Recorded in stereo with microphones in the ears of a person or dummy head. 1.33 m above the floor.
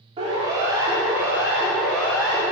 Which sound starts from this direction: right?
A siren, at 0.2 s.